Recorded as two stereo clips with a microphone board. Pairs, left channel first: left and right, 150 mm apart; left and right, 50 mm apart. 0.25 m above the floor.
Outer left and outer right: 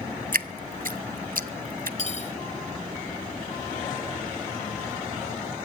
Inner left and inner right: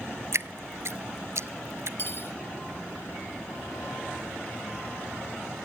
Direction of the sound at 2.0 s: 50° left (ahead or behind).